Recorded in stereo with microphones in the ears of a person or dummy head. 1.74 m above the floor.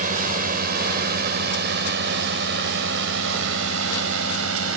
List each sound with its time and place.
0.0 s a drone: 45° right (ahead or behind); by 4.8 s 75° right (ahead or behind)